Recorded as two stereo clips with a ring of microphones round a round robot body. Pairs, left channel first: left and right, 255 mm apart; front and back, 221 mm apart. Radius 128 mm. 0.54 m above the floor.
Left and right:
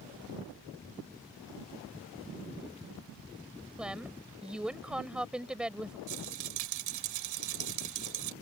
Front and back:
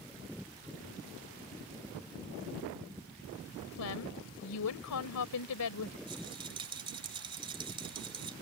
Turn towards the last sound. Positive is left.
turn(degrees=-110)